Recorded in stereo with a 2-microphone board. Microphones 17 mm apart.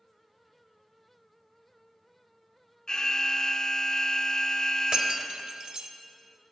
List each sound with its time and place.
2.9 s an alarm: 45° left (ahead or behind), 1.0 m
4.9 s breaking glass: 85° right, 1.3 m